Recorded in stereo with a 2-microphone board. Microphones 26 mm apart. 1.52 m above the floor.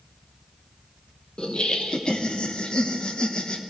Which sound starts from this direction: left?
Laughter, at 1.4 s.